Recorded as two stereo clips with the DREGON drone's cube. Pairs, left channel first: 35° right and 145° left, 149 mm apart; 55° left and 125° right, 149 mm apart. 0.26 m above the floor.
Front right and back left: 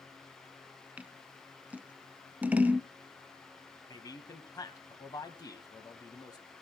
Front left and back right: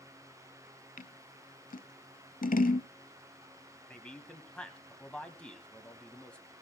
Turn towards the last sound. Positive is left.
turn(degrees=-20)